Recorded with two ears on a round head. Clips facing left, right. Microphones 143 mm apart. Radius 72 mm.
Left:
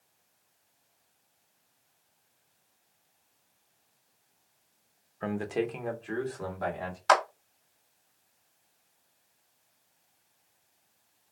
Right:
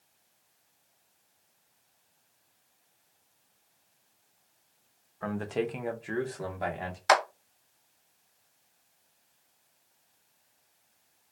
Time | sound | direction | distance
5.2 | a man speaking | 30° left (ahead or behind) | 0.5 m
7.1 | a clap | 10° right (ahead or behind) | 0.6 m